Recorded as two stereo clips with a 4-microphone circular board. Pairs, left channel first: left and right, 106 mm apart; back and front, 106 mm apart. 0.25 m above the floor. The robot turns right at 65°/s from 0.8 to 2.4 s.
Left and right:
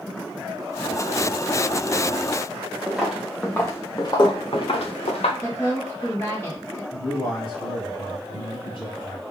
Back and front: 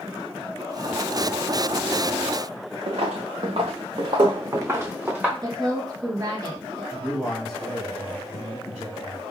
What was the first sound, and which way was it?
Footsteps, 5° right.